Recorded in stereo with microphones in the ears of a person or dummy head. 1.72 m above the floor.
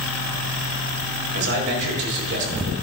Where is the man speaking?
65° right (ahead or behind), 5 m.